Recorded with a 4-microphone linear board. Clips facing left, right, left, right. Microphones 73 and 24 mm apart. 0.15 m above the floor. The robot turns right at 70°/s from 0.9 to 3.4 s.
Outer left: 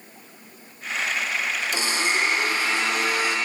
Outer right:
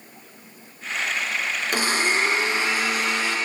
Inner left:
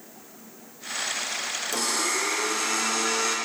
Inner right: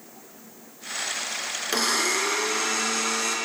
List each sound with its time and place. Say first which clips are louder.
1.7 s a blender: outer right 4 dB, inner right 4 dB; 95° right, 1.0 m; by 3.4 s 20° left, 1.0 m